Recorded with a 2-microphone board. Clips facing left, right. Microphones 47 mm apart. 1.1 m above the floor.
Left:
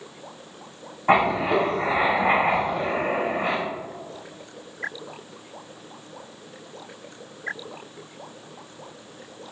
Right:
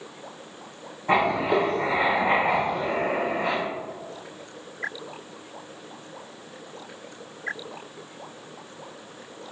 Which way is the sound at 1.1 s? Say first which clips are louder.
Left 2 dB; 55° left (ahead or behind).